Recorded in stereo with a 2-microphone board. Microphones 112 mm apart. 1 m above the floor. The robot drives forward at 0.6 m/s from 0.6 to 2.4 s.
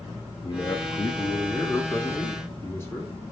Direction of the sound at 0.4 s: 40° left (ahead or behind).